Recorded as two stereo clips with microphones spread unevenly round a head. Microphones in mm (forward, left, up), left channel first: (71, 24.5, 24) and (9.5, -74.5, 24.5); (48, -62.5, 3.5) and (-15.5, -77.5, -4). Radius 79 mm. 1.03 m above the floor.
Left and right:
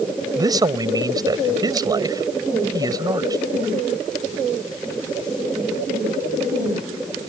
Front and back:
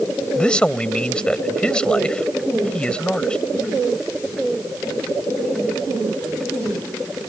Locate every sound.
0.3 s a man speaking: 65° right